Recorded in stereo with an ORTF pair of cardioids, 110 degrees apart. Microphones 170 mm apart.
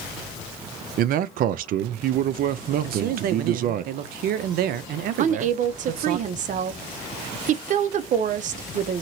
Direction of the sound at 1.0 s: 60° right.